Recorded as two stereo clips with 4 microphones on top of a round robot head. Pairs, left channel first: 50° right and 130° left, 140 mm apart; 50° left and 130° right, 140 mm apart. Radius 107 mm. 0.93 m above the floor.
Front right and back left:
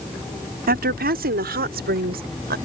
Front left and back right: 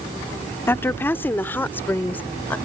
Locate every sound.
0.7 s a woman speaking: 125° left; by 2.5 s 130° left